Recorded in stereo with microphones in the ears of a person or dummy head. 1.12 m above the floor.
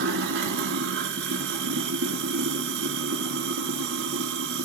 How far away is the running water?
About 1.3 m.